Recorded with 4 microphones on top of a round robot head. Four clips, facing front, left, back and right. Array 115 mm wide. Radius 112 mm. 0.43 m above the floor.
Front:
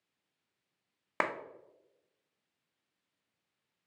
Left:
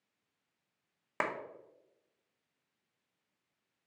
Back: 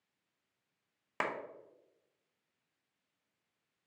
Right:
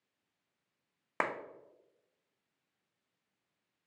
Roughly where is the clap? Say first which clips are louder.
Right 1 dB, front 3 dB; ahead.